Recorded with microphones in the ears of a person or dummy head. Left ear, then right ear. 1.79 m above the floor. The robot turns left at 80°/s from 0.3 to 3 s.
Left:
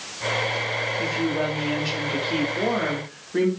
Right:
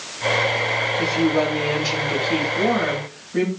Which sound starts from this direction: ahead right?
A woman speaking, at 1.0 s.